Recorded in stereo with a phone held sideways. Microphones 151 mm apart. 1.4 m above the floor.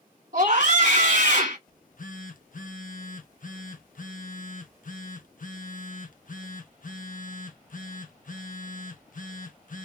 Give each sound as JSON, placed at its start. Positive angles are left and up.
{"t": 0.3, "sound": "a scream", "side_deg": -60, "distance_m": 1.1}
{"t": 1.7, "sound": "a phone buzzing", "side_deg": 60, "distance_m": 0.5}